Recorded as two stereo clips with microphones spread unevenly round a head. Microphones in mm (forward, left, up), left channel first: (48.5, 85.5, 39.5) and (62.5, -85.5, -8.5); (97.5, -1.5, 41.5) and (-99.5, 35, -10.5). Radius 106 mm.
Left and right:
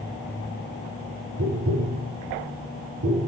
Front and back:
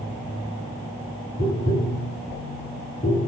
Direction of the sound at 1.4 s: 70° right.